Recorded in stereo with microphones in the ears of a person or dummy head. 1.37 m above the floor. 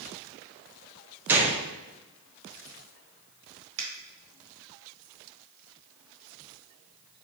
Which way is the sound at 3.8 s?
45° right (ahead or behind).